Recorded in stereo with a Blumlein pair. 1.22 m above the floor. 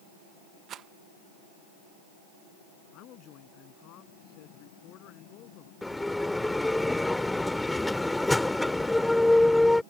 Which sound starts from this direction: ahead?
A bell, at 5.8 s.